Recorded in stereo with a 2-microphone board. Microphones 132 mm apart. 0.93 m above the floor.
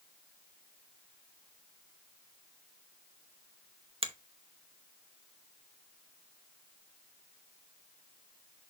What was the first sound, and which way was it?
A finger snap, 45° right (ahead or behind).